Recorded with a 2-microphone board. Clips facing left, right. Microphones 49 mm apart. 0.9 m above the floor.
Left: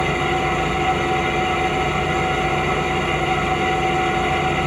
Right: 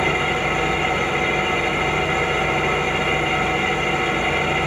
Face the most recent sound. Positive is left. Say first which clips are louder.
# even
turn(degrees=-35)  # may be behind; listen again after turning